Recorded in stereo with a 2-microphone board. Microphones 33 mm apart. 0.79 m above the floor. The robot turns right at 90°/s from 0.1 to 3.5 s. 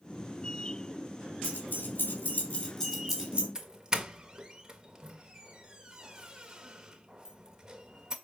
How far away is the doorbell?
About 1.4 m.